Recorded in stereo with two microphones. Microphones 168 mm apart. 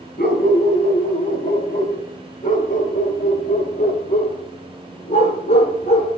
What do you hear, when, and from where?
0.2 s a dog barking: 65° left (ahead or behind), 4 m; by 6.1 s 40° left (ahead or behind), 7.5 m